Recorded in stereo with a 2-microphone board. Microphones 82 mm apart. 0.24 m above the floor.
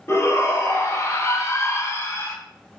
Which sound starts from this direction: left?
A shout, at 0.1 s.